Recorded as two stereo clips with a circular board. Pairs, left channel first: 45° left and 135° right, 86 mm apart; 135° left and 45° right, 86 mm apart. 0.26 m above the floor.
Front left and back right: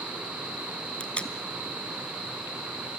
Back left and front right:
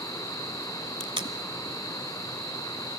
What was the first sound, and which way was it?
Tape being pulled, 30° right.